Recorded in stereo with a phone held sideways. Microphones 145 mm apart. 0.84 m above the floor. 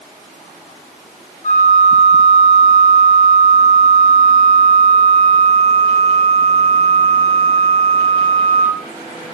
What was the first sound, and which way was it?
A flute, 60° left (ahead or behind).